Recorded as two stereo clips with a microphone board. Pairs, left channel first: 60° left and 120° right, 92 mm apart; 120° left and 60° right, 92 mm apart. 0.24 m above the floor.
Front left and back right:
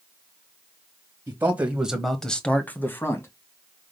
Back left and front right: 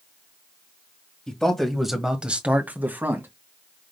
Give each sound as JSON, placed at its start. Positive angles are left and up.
{"t": 1.3, "sound": "a man speaking", "azimuth_deg": -170, "distance_m": 1.4}